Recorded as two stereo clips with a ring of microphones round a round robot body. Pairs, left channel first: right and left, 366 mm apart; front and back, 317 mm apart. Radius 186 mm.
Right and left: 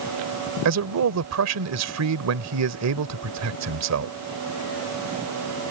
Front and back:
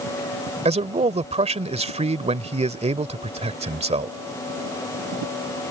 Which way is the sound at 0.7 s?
115° left.